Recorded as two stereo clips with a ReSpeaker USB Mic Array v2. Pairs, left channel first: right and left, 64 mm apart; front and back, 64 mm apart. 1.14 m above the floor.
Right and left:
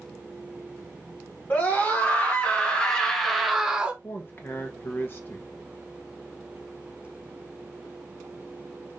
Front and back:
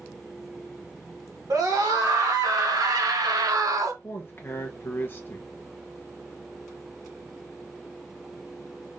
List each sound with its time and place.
1.5 s a scream: 155° right, 1.8 m; by 3.9 s 160° left, 0.6 m
4.0 s a man speaking: 45° right, 0.9 m